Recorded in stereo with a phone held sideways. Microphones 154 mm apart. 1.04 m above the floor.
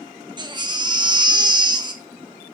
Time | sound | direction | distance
0.4 | a baby crying | 30° right (ahead or behind) | 0.8 m